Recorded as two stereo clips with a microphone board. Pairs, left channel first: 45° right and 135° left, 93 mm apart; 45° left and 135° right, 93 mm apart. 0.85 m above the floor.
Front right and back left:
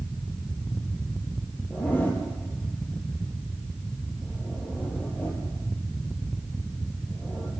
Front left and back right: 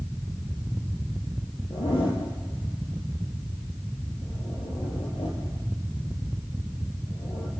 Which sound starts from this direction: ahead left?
A zipper, at 1.7 s.